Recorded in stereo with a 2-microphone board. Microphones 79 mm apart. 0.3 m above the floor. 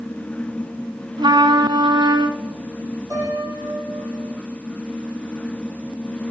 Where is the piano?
50° right (ahead or behind), 6.5 m.